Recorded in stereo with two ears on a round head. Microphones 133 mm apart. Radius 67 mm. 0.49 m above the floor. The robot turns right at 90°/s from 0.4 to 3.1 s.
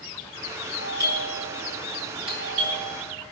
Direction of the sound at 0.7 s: Centre (ahead or behind).